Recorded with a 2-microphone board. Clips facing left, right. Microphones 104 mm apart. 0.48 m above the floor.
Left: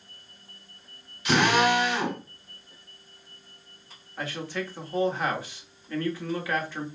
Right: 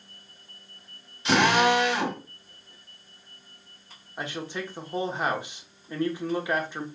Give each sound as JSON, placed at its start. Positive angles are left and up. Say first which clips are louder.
{"t": 1.2, "sound": "a drill", "louder": "right 1 dB", "side_deg": -30, "distance_m": 1.9}
{"t": 4.2, "sound": "a man speaking", "louder": "left 1 dB", "side_deg": -20, "distance_m": 1.0}